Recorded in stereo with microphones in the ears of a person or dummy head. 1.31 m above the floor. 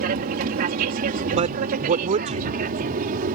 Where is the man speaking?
40° right (ahead or behind).